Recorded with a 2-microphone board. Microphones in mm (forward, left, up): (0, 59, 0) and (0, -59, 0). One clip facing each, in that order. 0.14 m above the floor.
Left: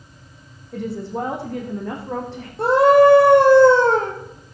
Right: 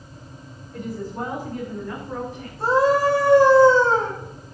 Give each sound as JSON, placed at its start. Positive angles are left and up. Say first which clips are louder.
{"t": 0.7, "sound": "a woman speaking", "louder": "left 4 dB", "side_deg": 75, "distance_m": 7.0}
{"t": 2.6, "sound": "a scream", "louder": "left 6 dB", "side_deg": 70, "distance_m": 4.5}